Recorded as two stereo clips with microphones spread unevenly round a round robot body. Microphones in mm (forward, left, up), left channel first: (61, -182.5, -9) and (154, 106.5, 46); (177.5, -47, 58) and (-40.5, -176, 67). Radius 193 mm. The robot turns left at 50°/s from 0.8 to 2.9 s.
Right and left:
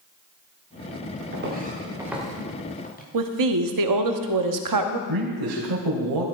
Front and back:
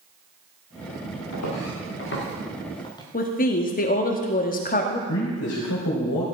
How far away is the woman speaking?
About 1.2 m.